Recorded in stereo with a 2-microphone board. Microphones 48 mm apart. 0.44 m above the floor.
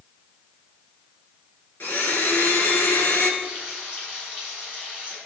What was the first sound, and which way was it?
A blender, 45° left (ahead or behind).